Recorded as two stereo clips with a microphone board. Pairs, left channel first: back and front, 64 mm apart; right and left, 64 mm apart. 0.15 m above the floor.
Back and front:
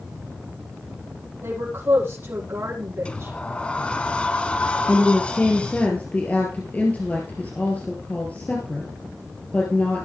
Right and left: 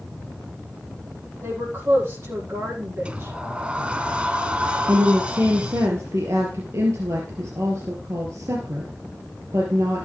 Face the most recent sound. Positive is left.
turn(degrees=120)